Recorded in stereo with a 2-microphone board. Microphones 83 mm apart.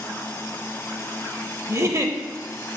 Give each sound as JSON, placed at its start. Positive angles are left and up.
{"t": 1.7, "sound": "a giggle", "side_deg": -40, "distance_m": 0.6}